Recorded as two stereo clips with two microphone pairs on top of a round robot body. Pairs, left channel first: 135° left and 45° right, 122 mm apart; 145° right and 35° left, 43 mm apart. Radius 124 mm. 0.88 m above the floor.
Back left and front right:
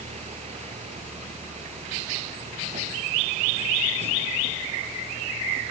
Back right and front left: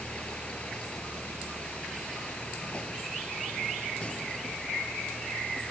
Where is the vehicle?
80° right.